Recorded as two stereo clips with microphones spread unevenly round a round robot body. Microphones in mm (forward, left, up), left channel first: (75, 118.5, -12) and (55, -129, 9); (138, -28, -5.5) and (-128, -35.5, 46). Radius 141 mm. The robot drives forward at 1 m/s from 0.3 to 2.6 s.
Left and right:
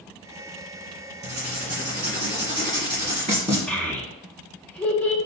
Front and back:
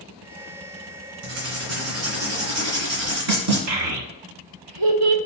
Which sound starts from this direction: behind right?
Writing, at 1.2 s.